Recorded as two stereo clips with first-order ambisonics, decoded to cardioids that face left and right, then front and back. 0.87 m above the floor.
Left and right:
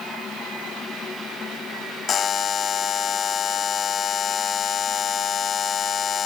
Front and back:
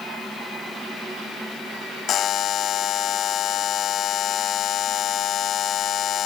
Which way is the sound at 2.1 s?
40° left.